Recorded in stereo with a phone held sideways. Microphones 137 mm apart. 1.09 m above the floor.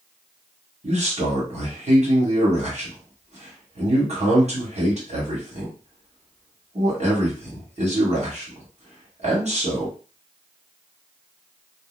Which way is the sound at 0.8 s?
55° right (ahead or behind).